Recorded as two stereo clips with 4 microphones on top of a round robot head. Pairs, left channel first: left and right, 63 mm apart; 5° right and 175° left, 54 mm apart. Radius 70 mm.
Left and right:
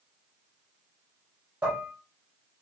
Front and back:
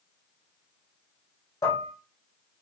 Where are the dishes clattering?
20° right, 1.6 m.